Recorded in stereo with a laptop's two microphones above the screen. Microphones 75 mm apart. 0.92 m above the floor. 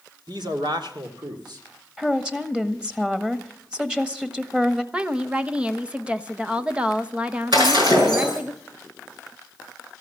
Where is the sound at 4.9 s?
15° right (ahead or behind), 0.7 m.